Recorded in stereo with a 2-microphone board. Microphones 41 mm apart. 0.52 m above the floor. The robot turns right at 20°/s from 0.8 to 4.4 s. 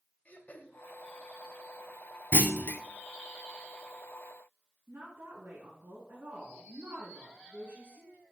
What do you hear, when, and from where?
0.2 s throat clearing: 40° left (ahead or behind), 1.1 m
2.3 s a clunk: 50° left (ahead or behind), 0.7 m; by 2.8 s 55° left (ahead or behind), 0.7 m
4.9 s a woman speaking: 70° right (ahead or behind), 4.5 m